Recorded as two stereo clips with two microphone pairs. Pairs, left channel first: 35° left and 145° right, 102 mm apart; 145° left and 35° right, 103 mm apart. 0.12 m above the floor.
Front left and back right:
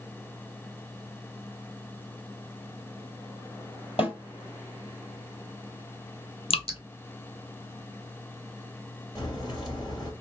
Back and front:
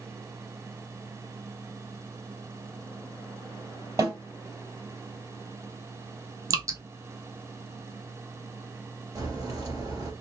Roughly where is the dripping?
Ahead.